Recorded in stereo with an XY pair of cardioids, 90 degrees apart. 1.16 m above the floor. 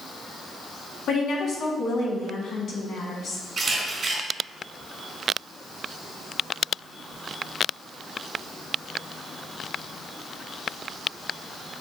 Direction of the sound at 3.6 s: 50° right.